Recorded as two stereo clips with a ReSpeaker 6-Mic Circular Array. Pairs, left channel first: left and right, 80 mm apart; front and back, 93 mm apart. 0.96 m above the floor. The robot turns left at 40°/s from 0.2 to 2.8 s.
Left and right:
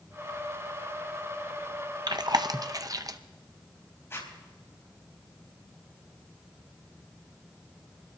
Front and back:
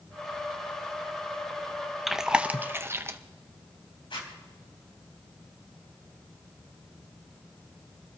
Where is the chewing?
90° right, 0.6 m; by 3.2 s 120° right, 0.6 m.